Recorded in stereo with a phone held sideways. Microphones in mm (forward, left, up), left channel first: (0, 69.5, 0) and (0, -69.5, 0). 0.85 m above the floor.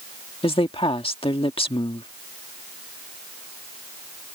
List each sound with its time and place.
0.4 s a woman speaking: 40° left (ahead or behind)